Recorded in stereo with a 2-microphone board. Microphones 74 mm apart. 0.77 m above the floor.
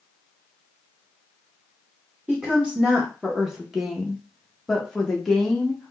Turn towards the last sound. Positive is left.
turn(degrees=10)  # may be behind; listen again after turning